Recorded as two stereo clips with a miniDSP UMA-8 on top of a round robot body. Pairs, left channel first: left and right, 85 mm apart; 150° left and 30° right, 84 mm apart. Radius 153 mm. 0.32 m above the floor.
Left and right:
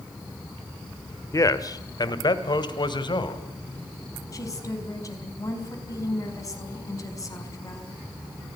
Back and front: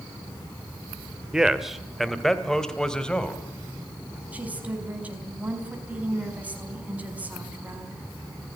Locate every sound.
1.3 s a man speaking: 50° left, 1.7 m; by 3.4 s 70° left, 3 m
4.3 s a woman speaking: 40° left, 5 m